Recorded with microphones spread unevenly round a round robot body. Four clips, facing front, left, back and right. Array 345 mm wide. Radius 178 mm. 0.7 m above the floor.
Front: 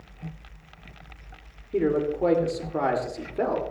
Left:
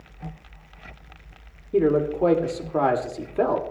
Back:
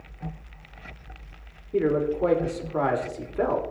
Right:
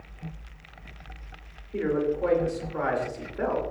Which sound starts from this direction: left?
A man speaking, at 1.7 s.